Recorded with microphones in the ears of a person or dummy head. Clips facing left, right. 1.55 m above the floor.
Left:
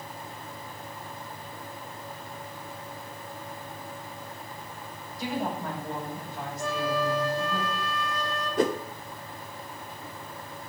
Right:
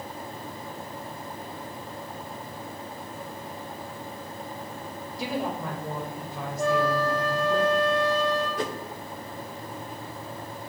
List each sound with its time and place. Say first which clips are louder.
5.2 s a woman speaking: right 1 dB; 65° right (ahead or behind), 6.5 m
6.6 s a flute: right 5 dB; 60° right (ahead or behind), 9 m
8.6 s a whoosh: left 6 dB; 40° left (ahead or behind), 0.8 m